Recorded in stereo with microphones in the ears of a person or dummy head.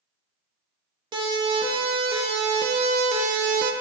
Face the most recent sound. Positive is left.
turn(degrees=-50)  # may be behind; listen again after turning